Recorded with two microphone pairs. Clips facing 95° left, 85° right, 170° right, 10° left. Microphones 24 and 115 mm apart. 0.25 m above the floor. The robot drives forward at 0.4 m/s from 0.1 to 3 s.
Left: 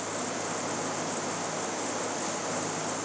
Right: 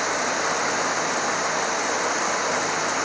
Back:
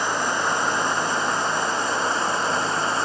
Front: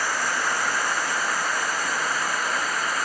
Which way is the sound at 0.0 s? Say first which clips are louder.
Right 10 dB, back 3 dB; 100° right.